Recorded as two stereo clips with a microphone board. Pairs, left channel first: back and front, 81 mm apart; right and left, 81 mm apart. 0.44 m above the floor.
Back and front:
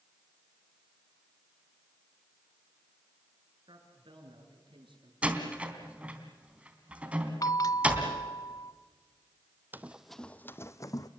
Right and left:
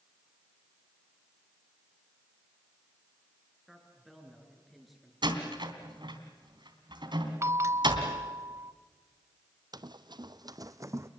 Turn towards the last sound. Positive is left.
turn(degrees=140)